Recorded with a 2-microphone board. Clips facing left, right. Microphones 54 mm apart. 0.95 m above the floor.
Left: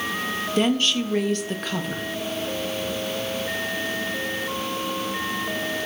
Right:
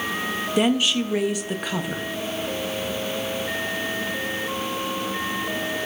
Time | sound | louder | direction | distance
0.6 | a woman speaking | right 1 dB | 10° right (ahead or behind) | 0.7 m